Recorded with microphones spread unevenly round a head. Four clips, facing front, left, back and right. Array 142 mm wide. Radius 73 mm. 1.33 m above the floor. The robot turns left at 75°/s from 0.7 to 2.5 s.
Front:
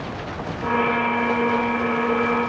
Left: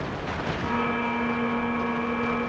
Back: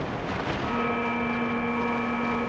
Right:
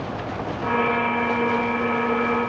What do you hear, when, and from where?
Only background noise.